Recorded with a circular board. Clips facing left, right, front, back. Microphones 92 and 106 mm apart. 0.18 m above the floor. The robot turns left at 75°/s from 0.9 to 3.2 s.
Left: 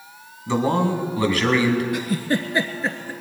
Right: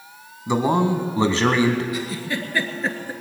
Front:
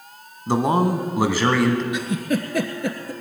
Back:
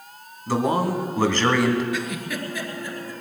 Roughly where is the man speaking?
Ahead right.